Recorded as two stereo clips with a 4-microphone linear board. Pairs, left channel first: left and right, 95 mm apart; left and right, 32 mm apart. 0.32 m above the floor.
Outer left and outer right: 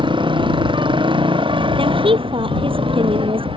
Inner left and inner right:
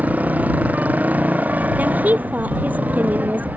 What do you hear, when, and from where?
0.0 s a motorcycle: 60° right (ahead or behind); by 3.6 s 70° right (ahead or behind)
1.8 s a woman speaking: 70° right (ahead or behind)